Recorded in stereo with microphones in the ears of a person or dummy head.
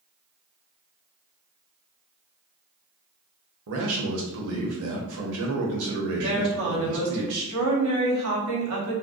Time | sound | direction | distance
3.7 | a man speaking | 70° right (ahead or behind) | 1.0 m
6.2 | a woman speaking | 80° right | 1.2 m